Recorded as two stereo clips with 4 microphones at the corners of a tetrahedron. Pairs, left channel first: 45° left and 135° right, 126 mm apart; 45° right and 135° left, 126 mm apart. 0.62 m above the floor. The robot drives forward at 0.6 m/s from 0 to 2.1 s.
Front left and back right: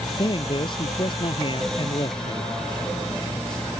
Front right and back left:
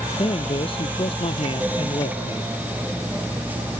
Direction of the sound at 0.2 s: 5° right.